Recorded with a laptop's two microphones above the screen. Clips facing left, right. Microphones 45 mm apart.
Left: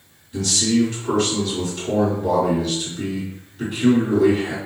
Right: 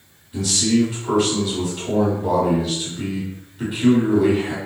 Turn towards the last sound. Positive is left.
turn(degrees=-10)  # may be behind; listen again after turning